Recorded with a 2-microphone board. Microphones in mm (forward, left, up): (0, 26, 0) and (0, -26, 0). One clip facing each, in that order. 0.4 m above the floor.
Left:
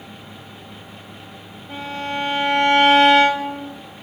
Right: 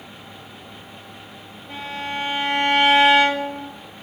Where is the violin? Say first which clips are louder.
Left 2 dB; 30° right (ahead or behind), 1.6 m.